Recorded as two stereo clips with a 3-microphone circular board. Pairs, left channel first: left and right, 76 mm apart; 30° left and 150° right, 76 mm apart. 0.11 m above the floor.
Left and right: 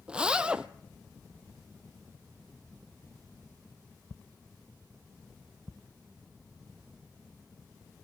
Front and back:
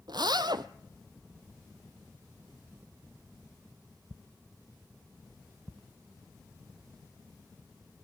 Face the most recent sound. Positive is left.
turn(degrees=-170)